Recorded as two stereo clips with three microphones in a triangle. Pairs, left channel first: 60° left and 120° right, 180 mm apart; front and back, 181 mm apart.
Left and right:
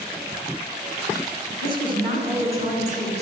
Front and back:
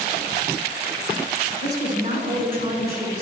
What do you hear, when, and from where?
1.6 s a woman speaking: 170° right, 1.4 m; by 3.2 s 165° right, 2.5 m